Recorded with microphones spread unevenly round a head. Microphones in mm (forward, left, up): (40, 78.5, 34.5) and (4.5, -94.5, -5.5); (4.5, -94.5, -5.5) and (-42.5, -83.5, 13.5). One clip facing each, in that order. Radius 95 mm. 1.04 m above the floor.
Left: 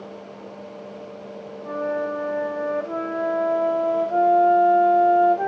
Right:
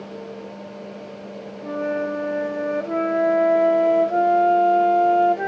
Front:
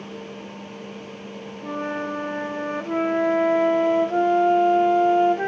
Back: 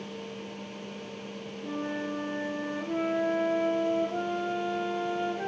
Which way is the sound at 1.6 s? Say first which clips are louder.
Right 1 dB, front 6 dB; 35° right.